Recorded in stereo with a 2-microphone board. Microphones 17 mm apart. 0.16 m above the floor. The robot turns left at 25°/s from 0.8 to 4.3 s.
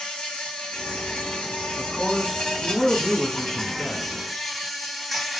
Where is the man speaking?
35° right, 1.1 m; by 4.1 s 95° right, 1.1 m.